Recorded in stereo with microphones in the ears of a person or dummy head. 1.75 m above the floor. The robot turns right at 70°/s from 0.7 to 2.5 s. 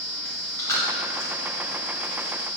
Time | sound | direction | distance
0.2 | chewing | 15° left (ahead or behind) | 3 m